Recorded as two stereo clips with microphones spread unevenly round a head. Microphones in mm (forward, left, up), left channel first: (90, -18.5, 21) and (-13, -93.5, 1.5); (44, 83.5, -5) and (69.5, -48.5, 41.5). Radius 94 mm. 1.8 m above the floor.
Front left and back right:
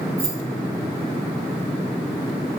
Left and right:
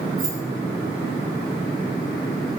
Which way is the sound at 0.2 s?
100° right.